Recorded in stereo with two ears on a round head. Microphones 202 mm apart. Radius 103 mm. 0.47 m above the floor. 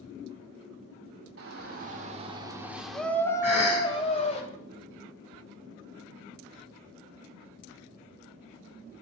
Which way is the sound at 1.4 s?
45° right (ahead or behind).